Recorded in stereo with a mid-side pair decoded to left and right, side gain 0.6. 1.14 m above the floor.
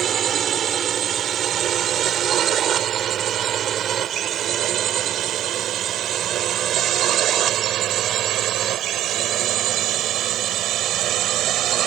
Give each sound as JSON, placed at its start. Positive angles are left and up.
{"t": 0.0, "sound": "a drone", "azimuth_deg": -45}